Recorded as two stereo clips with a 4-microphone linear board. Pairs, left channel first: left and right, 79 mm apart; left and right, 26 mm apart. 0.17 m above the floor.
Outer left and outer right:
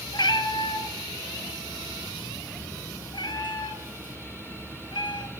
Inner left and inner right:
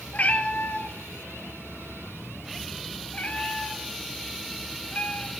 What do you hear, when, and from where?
0.1 s a cat meowing: 70° left (ahead or behind), 0.9 m